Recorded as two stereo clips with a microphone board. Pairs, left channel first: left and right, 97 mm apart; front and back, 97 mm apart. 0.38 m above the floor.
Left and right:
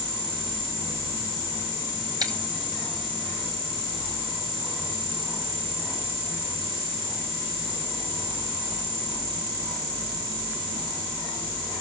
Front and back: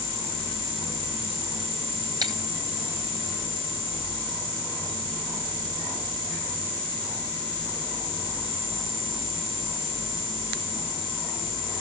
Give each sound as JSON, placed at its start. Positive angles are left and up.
{"t": 2.2, "sound": "breaking glass", "azimuth_deg": -135, "distance_m": 1.6}